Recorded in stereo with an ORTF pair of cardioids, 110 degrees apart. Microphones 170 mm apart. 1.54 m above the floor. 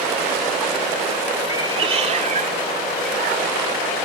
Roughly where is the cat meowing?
Ahead right.